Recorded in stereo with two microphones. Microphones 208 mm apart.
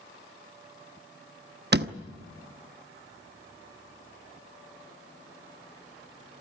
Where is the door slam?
50° right (ahead or behind), 1.0 m.